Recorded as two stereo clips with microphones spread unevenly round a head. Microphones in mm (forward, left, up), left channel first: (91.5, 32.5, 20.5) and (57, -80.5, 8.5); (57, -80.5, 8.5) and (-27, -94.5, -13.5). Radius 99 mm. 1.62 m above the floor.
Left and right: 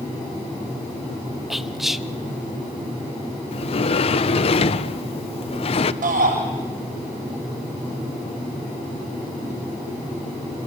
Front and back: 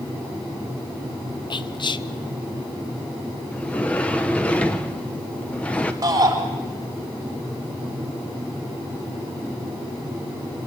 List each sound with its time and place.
1.5 s whispering: 20° right, 1.4 m
3.5 s a sliding door: 75° left, 0.7 m
6.0 s a shout: 125° right, 7.5 m